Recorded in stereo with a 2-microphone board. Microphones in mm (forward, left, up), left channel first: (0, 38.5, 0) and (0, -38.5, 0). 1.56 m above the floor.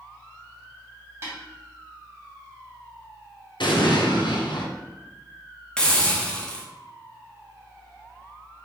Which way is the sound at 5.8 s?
10° left (ahead or behind).